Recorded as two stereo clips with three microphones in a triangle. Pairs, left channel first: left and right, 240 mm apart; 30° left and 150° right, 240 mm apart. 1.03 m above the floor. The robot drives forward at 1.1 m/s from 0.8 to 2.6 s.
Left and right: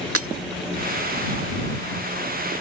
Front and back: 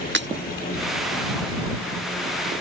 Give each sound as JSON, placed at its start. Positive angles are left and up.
{"t": 0.1, "sound": "breaking glass", "azimuth_deg": -110}